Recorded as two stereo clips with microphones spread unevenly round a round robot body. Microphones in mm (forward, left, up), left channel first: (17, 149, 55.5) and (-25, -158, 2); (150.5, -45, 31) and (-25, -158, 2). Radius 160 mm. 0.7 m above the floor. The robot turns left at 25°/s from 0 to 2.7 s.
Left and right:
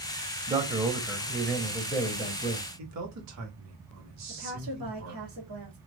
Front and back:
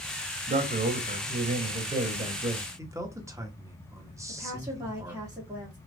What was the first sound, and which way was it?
A man speaking, 155° right.